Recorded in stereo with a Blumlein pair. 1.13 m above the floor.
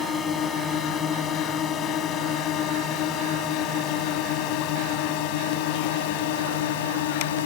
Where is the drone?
25° left; by 7.5 s 55° left.